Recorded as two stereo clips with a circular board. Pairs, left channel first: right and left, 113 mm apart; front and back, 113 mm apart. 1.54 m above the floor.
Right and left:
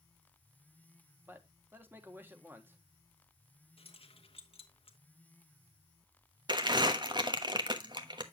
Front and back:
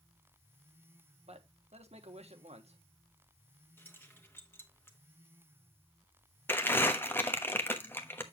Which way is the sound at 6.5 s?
65° left.